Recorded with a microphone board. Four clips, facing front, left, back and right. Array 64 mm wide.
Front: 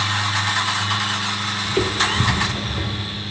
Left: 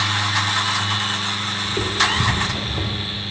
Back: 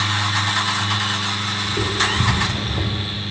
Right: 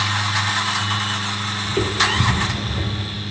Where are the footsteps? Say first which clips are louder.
Right 1 dB, front 2 dB; 15° right, 1.0 m; by 3.0 s 135° left, 0.8 m.